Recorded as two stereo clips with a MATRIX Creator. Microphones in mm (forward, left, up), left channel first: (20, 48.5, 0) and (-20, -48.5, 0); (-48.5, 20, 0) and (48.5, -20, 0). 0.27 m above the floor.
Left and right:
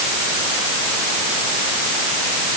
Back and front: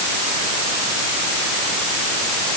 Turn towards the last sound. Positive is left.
No sound to turn to.